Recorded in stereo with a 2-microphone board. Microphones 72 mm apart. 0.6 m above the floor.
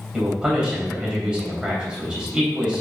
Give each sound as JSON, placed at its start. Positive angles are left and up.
{"t": 0.1, "sound": "a man speaking", "side_deg": -10, "distance_m": 4.0}